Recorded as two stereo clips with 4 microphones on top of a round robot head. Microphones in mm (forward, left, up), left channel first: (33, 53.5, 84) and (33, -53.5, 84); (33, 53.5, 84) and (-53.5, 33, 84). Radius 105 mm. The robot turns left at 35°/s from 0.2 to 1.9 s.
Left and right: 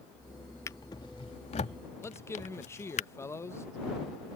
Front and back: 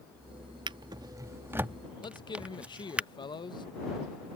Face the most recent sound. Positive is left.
turn(degrees=30)